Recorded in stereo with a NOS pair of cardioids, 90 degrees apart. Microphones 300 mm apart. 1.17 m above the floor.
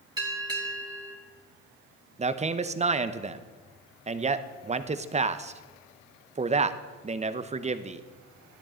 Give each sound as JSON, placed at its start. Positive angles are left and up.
{"t": 0.2, "sound": "a bell", "azimuth_deg": -15, "distance_m": 2.5}
{"t": 2.2, "sound": "a man speaking", "azimuth_deg": -25, "distance_m": 0.9}